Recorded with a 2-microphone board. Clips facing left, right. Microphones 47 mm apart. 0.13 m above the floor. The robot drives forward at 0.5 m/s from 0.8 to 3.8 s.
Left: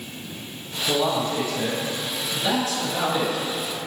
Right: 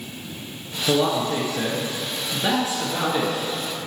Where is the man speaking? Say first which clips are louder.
Right 2 dB; 35° right (ahead or behind), 2 m; by 3.4 s 25° right (ahead or behind), 2.5 m.